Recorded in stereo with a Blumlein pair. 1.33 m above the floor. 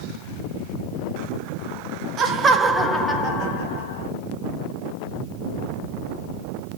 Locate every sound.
2.2 s laughter: 30° right, 0.8 m; by 4.1 s 60° left, 1.0 m